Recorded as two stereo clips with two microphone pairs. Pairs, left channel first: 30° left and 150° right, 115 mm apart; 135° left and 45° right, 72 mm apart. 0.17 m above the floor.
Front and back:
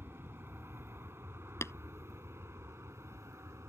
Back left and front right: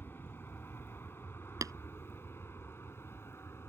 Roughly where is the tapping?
Ahead right.